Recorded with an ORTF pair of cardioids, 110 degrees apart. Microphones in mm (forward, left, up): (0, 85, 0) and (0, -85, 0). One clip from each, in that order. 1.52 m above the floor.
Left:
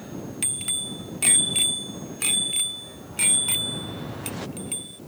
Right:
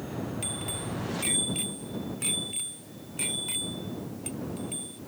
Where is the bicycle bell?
55° left; by 5.0 s 50° left.